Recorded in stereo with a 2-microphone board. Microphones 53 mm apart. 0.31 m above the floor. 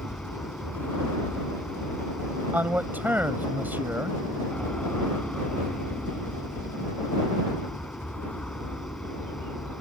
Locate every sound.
0.0 s an aircraft: 15° left (ahead or behind)
2.5 s a man speaking: 35° right (ahead or behind)